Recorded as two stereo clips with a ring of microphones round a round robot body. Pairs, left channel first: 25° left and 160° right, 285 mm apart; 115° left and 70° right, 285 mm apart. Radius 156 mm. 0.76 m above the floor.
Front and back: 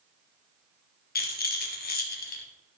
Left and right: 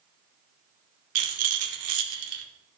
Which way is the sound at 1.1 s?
35° right.